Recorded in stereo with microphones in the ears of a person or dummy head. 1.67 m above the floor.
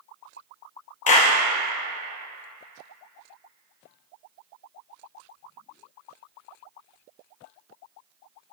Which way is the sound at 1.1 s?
40° left (ahead or behind).